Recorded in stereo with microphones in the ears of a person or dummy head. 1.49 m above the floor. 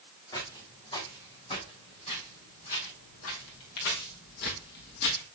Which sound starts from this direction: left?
Footsteps, at 0.3 s.